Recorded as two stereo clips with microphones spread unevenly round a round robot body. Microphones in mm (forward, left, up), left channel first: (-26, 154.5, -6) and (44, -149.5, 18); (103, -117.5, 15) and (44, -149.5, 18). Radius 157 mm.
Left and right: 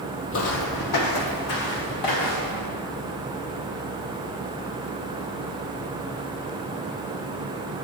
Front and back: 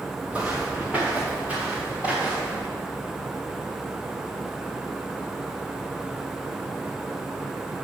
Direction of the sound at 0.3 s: 135° left.